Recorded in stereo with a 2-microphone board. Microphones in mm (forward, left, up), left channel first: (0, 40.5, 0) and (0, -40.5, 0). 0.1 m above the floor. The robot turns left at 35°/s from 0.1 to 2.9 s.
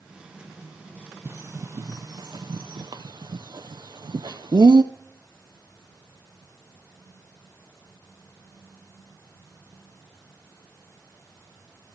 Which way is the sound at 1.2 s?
30° right (ahead or behind).